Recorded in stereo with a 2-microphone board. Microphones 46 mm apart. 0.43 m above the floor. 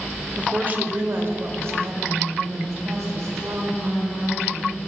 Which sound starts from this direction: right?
A woman speaking, at 0.4 s.